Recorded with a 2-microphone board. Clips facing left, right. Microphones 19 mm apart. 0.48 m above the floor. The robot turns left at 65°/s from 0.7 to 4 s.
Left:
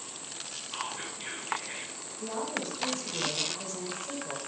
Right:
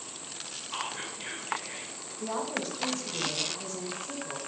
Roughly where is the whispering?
Behind right.